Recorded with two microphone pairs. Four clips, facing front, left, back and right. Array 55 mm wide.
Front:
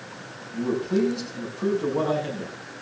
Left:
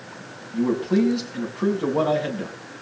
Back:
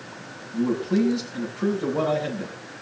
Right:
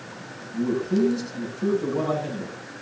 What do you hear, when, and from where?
0.5 s a man speaking: 95° left, 6.5 m